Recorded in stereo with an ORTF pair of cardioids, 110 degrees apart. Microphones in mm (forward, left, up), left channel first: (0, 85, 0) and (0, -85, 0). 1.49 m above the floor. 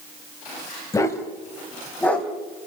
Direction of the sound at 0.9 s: 20° left.